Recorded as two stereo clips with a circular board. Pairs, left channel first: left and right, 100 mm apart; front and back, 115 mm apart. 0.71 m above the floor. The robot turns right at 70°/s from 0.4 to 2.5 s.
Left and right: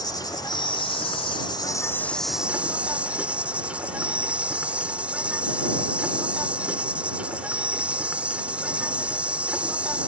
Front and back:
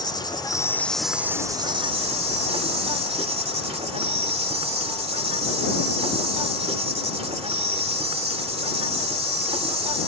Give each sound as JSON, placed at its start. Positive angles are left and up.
{"t": 0.0, "sound": "an insect", "azimuth_deg": 45}